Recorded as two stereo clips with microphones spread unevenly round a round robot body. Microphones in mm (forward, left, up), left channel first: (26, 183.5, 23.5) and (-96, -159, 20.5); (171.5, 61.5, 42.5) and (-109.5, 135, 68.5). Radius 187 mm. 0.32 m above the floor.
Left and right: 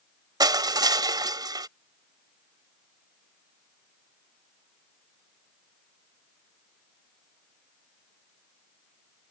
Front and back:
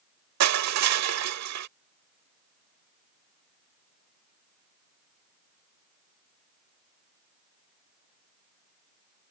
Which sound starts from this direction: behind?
Crushing, at 0.4 s.